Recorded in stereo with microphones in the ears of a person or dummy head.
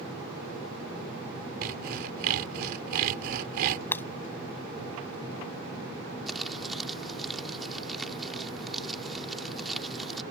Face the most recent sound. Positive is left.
turn(degrees=0)  # may be behind; listen again after turning